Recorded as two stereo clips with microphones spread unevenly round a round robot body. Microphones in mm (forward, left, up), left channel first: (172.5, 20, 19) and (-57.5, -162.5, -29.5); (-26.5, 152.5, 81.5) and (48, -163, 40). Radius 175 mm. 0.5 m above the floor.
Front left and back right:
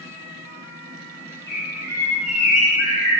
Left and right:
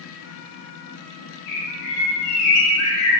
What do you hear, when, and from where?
1.5 s a bird: 120° left, 0.7 m